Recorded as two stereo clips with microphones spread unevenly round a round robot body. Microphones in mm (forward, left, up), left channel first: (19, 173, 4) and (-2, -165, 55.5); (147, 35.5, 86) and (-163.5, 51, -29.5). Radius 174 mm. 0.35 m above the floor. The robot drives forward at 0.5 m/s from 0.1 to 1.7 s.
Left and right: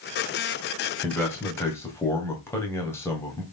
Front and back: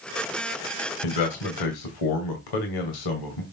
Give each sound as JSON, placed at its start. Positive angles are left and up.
{"t": 1.0, "sound": "a man speaking", "azimuth_deg": 10, "distance_m": 3.0}